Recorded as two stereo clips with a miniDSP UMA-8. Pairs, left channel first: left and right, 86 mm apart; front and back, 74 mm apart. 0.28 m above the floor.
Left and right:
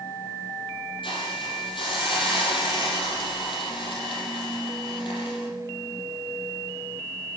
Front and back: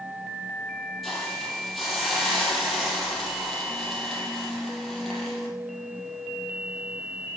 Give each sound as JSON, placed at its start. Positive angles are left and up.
{"t": 1.0, "sound": "a hiss", "azimuth_deg": 90, "distance_m": 5.0}